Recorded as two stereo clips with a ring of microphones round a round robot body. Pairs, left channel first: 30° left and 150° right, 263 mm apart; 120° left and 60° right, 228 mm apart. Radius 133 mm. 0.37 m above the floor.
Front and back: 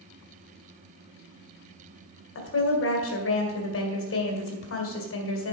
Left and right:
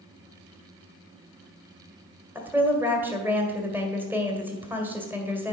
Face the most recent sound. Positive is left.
turn(degrees=20)